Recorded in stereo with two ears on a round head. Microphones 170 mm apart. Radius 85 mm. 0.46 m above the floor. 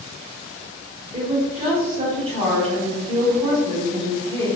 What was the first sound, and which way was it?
A woman speaking, 30° right (ahead or behind).